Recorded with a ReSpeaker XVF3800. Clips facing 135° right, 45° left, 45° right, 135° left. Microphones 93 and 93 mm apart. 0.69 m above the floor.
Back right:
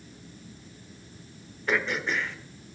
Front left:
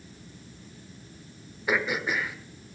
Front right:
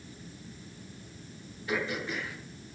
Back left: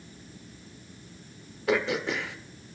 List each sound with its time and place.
1.7 s throat clearing: 125° left, 1.1 m